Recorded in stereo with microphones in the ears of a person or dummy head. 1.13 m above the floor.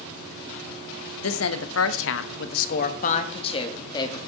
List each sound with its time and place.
1.2 s a woman speaking: 65° left (ahead or behind), 1.2 m; by 4.3 s 30° left (ahead or behind), 2 m